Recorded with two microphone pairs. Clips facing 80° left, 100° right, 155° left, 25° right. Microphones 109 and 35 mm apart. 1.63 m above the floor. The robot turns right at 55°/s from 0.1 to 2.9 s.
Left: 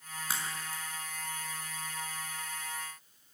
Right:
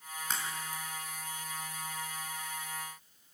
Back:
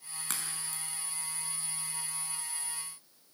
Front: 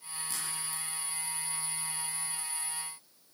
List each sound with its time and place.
0.3 s a crack: 160° left, 3.5 m; by 0.8 s 170° right, 3.5 m